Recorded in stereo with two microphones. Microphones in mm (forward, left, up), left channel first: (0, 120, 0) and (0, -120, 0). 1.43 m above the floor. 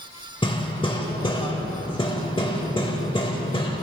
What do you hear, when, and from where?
0.4 s hammering: 20° left (ahead or behind), 1.3 m